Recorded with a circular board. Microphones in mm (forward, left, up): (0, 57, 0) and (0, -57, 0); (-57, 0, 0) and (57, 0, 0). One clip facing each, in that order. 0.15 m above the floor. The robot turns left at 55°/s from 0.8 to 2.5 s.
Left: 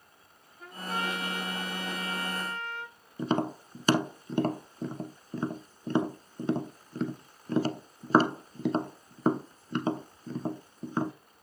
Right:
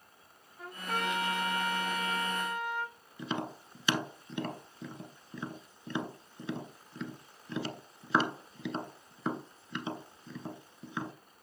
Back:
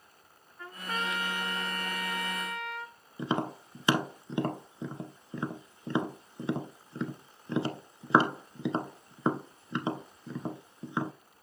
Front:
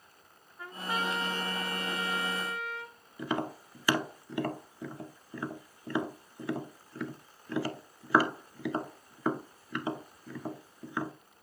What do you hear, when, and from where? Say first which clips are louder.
0.6 s a trumpet: left 1 dB, front 2 dB; 75° right, 6 m; by 2.9 s 170° right, 6 m
3.2 s tapping: left 8 dB, back 2 dB; 120° left, 0.8 m